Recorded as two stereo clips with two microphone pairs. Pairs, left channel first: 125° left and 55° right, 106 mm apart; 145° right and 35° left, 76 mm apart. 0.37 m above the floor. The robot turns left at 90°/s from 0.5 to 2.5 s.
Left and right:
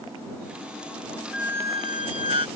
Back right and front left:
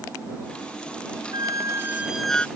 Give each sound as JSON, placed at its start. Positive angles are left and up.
{"t": 1.3, "sound": "a squeak", "azimuth_deg": 30}